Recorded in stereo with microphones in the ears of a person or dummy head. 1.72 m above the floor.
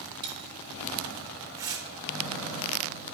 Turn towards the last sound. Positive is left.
turn(degrees=-15)  # may be behind; listen again after turning